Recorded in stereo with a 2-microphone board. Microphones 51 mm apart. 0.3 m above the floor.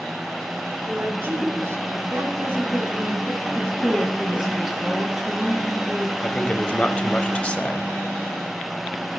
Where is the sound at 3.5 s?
5° right (ahead or behind), 3.5 m.